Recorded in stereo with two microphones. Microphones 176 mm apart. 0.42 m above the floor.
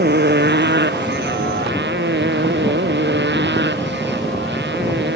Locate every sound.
0.0 s a motorcycle: 70° right (ahead or behind); by 5.2 s 85° right